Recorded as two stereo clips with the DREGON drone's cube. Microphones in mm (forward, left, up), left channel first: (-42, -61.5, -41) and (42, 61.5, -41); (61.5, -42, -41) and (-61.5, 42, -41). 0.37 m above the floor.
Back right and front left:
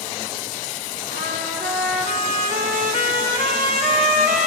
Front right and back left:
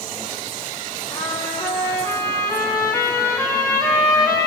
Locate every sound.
1.1 s a trumpet: 40° left, 5.5 m